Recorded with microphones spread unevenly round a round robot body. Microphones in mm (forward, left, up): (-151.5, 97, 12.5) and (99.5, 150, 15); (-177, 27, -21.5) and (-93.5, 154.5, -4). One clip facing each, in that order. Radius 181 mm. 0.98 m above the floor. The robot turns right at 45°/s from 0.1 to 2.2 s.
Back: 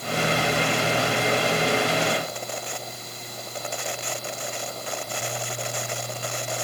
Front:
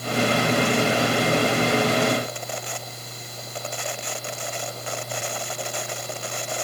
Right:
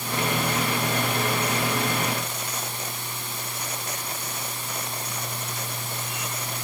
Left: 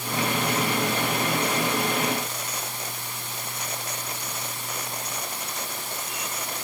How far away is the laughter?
No laughter in this recording.